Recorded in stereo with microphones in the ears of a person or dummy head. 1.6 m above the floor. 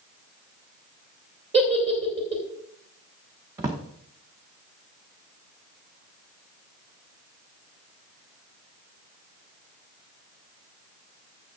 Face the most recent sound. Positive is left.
turn(degrees=-10)  # may be behind; listen again after turning